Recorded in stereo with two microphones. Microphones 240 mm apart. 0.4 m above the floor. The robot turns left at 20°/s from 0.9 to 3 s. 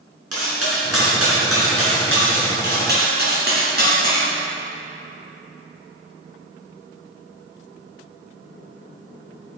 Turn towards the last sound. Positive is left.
turn(degrees=-40)  # may be behind; listen again after turning